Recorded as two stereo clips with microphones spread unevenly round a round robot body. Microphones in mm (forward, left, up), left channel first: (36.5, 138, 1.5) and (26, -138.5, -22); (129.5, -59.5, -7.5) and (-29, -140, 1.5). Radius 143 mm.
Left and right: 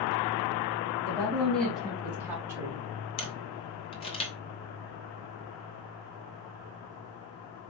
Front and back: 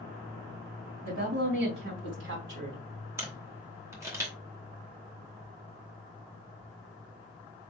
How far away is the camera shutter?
About 0.9 m.